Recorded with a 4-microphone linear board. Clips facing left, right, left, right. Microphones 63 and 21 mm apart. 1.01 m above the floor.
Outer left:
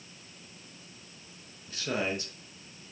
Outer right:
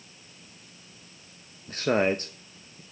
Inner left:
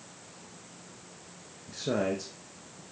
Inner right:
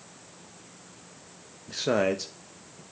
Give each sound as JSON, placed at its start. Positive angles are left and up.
{"t": 1.7, "sound": "a man speaking", "side_deg": -45, "distance_m": 0.9}